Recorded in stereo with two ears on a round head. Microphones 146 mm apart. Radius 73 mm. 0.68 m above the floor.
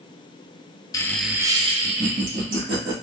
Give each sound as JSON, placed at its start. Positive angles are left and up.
{"t": 0.9, "sound": "laughter", "side_deg": 20, "distance_m": 0.5}